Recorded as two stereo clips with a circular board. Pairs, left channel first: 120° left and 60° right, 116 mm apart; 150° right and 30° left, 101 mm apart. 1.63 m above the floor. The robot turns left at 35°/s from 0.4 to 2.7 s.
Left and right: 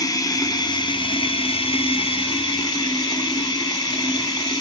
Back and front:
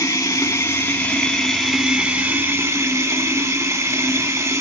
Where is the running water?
160° left, 2 m; by 4.6 s 80° left, 2 m.